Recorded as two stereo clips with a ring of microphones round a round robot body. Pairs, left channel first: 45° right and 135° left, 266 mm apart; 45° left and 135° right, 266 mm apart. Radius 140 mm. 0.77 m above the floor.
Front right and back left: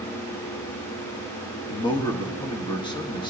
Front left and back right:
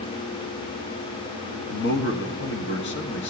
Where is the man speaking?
20° left, 1.2 m.